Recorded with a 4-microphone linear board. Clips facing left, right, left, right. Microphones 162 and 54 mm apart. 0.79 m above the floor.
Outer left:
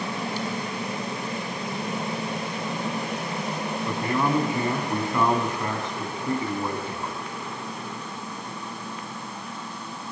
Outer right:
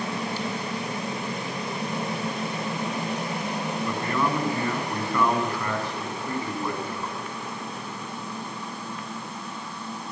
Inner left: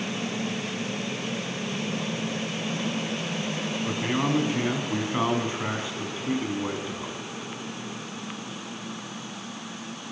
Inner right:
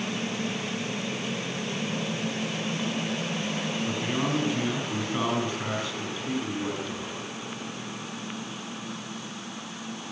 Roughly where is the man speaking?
Centre.